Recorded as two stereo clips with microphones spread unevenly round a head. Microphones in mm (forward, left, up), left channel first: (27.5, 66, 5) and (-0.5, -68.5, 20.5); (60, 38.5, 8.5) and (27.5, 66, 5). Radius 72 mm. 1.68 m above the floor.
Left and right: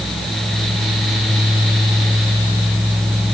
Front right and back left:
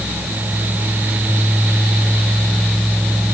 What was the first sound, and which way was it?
Only background noise.